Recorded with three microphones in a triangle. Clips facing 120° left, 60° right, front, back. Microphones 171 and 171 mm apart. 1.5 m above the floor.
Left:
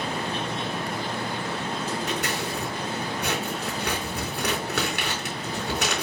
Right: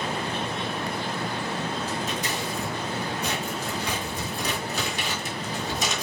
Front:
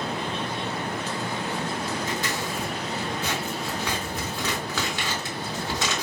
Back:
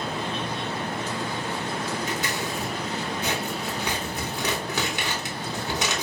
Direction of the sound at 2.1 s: 110° left.